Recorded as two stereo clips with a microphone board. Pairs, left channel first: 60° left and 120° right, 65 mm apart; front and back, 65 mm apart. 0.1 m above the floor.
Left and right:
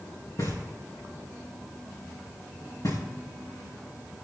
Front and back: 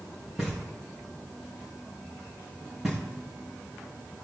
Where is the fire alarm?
No fire alarm in this recording.